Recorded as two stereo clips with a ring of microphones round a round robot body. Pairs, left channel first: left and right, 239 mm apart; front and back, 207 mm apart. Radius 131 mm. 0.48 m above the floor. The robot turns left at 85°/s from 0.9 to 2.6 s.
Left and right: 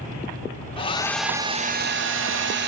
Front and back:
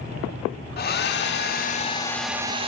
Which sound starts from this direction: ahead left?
A hair dryer, at 0.8 s.